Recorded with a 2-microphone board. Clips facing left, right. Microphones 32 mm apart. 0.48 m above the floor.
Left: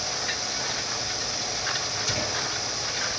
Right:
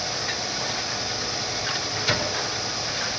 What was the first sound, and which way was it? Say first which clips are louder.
A microwave: right 5 dB; 30° right (ahead or behind).